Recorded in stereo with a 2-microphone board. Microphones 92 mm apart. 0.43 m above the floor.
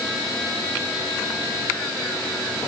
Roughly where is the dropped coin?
I don't hear a dropped coin.